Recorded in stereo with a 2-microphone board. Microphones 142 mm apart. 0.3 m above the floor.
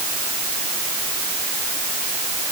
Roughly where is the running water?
I don't hear running water.